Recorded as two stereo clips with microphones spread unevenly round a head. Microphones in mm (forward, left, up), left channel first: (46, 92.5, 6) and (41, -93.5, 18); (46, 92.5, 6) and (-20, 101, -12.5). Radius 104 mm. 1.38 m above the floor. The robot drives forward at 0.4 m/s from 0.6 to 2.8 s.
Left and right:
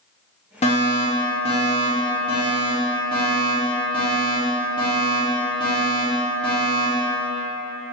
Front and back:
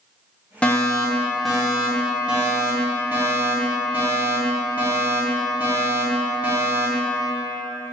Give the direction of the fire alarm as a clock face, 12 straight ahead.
9 o'clock.